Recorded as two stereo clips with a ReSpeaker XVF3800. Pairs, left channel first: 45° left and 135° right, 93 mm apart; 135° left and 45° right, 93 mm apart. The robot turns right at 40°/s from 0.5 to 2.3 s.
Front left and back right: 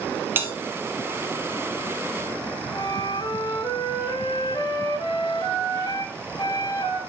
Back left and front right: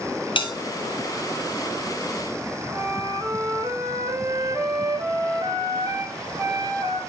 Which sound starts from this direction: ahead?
A flute, at 2.7 s.